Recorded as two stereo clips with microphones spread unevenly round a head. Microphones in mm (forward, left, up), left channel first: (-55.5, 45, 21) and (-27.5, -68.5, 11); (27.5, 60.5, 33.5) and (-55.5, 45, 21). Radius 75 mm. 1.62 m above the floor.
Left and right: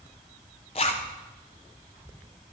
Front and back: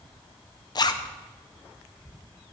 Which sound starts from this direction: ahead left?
A zipper, at 0.8 s.